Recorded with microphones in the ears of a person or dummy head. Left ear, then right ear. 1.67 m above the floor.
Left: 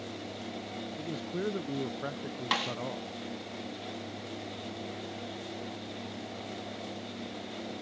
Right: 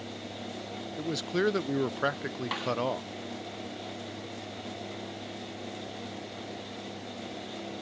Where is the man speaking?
40° right (ahead or behind).